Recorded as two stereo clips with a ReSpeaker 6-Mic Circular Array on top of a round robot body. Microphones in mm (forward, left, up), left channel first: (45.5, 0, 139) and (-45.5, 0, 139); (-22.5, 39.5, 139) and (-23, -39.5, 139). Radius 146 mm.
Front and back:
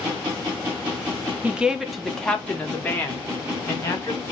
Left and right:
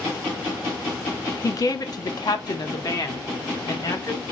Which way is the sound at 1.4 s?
110° left.